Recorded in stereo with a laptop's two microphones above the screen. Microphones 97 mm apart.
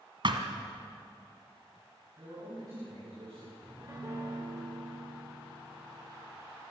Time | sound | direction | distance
0.2 | a thud | 55° right (ahead or behind) | 1.8 m
2.2 | a man speaking | 40° right (ahead or behind) | 8 m
3.6 | a piano | 35° right (ahead or behind) | 4 m